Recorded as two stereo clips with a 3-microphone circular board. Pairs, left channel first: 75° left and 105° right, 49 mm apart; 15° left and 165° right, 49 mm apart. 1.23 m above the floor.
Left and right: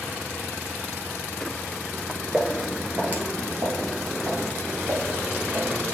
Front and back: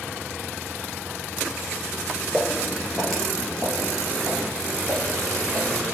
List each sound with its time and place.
2.3 s footsteps: 85° right, 1.2 m; by 5.8 s 65° right, 3.5 m